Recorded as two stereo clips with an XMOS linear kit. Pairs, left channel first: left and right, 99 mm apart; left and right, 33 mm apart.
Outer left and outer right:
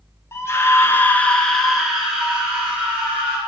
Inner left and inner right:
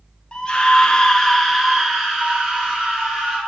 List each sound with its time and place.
0.3 s a scream: 30° left (ahead or behind), 0.7 m; by 3.4 s 15° right (ahead or behind), 1.4 m